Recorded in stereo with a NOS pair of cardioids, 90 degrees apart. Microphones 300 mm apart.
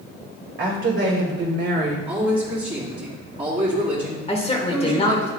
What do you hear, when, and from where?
0.6 s a woman speaking: 45° right, 2.5 m; by 2.0 s 40° right, 1.9 m
2.1 s a man speaking: 20° right, 3 m
4.3 s a woman speaking: 20° left, 1.5 m